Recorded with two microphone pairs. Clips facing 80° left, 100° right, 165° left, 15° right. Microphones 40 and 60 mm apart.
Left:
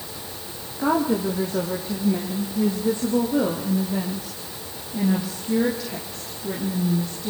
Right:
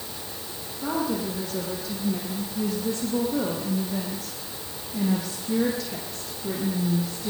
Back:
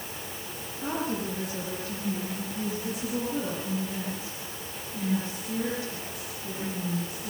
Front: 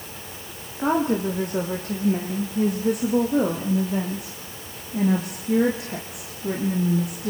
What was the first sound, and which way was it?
A woman speaking, 20° left.